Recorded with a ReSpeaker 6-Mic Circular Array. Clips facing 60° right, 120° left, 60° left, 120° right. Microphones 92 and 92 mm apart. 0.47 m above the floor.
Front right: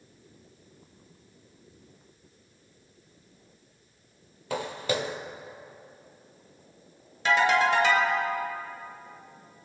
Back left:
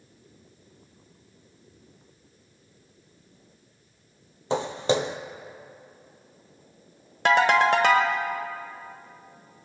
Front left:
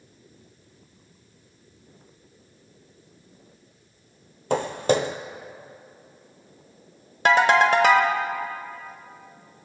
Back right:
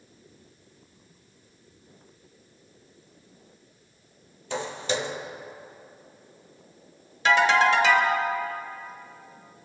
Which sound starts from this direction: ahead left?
Footsteps, at 4.5 s.